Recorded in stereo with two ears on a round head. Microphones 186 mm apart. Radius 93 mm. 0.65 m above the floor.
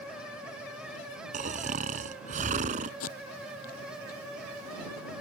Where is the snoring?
40° right (ahead or behind).